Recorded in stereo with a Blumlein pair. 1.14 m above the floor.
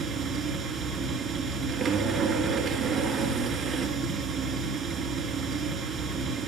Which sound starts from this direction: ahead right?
A machine running, at 0.0 s.